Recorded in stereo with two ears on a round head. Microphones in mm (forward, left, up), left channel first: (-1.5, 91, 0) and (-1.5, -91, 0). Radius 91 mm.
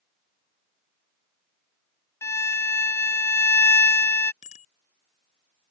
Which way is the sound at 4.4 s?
35° left (ahead or behind).